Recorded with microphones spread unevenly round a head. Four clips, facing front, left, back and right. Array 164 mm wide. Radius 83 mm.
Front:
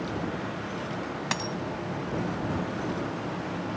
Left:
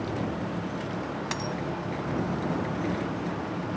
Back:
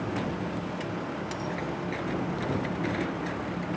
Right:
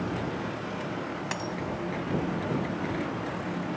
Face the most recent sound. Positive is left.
turn(degrees=-15)